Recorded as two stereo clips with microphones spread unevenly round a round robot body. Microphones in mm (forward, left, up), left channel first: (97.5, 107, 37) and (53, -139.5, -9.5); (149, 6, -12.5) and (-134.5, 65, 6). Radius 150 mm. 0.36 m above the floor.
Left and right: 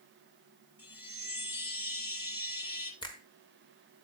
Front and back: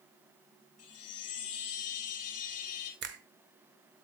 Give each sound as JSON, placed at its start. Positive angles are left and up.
{"t": 0.8, "sound": "a chime", "azimuth_deg": 30, "distance_m": 1.8}
{"t": 3.0, "sound": "a finger snap", "azimuth_deg": 155, "distance_m": 0.9}